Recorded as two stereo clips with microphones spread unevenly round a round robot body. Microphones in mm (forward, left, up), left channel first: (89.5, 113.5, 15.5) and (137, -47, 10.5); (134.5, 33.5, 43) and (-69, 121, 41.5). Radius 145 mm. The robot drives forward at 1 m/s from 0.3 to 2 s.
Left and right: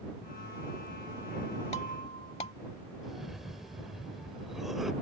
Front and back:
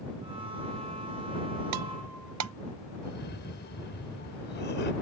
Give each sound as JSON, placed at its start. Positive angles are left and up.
{"t": 1.7, "sound": "breaking glass", "azimuth_deg": 175}
{"t": 3.0, "sound": "a cough", "azimuth_deg": 15}